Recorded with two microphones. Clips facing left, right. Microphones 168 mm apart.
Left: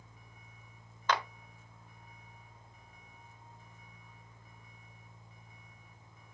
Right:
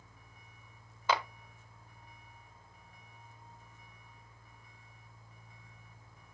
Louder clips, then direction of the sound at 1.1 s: Right 1 dB; 10° right (ahead or behind).